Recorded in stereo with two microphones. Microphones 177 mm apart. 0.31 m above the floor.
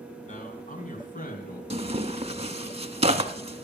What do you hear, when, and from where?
0.2 s a man speaking: 45° left (ahead or behind), 2.5 m; by 1.6 s 60° left (ahead or behind), 4 m
1.7 s tearing paper: 40° right (ahead or behind), 0.7 m